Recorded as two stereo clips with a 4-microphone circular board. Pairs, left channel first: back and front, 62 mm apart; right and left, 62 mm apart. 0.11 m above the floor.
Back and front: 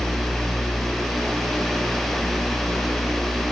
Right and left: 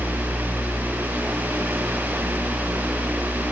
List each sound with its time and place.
Only background noise.